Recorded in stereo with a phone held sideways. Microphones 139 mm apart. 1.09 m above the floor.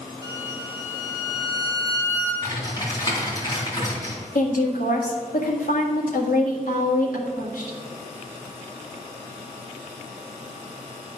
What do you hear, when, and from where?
0.2 s a violin: 25° right (ahead or behind), 3.5 m
2.4 s typing on a keyboard: 25° left (ahead or behind), 3 m
4.3 s a woman speaking: 75° left (ahead or behind), 1.8 m